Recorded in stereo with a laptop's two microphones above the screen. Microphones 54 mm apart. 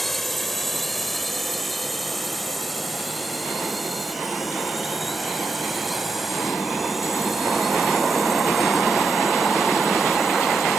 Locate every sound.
0.0 s a drone: 5° left (ahead or behind); by 10.8 s 5° right (ahead or behind)